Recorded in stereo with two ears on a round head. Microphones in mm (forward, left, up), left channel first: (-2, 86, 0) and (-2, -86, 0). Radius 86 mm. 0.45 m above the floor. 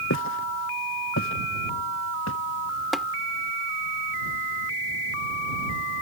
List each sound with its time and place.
0.1 s footsteps: 70° left (ahead or behind); by 2.4 s 80° left
2.9 s tapping: centre (ahead or behind)